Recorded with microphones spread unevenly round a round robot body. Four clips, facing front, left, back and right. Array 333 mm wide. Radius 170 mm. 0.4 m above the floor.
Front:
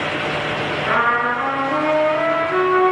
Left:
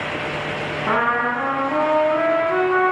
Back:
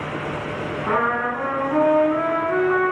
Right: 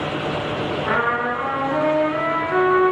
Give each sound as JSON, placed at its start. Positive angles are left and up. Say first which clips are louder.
{"t": 0.9, "sound": "a trumpet", "louder": "left 3 dB, front 3 dB", "azimuth_deg": 105, "distance_m": 4.0}